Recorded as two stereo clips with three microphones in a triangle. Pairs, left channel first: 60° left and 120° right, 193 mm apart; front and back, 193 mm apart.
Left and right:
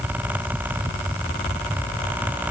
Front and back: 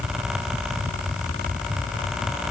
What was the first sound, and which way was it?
Only background noise.